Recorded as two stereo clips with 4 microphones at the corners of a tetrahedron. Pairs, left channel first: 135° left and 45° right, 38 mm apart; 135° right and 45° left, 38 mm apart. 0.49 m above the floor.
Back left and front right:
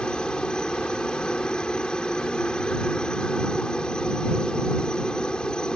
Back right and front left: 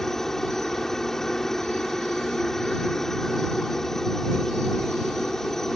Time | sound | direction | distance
0.0 | a helicopter | 160° left | ?